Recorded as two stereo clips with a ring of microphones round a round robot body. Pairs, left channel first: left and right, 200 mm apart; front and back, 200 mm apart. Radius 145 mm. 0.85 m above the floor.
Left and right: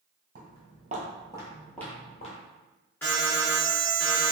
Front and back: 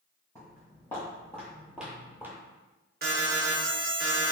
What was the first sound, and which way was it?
Footsteps, 75° right.